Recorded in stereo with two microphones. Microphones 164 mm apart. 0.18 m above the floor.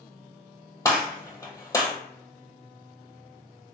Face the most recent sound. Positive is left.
turn(degrees=20)  # may be behind; listen again after turning